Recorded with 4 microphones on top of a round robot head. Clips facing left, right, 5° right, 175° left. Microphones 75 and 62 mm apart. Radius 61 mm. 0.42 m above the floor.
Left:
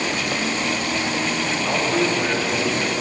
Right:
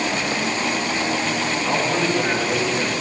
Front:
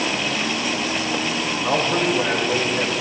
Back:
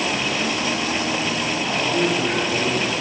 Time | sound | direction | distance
1.6 | a man speaking | straight ahead | 2.5 m